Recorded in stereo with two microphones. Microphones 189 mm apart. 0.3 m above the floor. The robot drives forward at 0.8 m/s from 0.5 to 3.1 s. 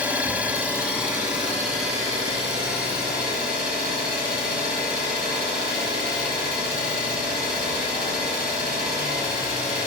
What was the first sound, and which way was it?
An engine running, 10° right (ahead or behind).